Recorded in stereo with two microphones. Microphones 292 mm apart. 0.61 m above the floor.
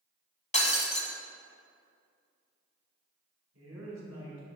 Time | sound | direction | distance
0.5 | breaking glass | 25° left (ahead or behind) | 0.9 m
3.5 | a woman speaking | 70° right (ahead or behind) | 2.5 m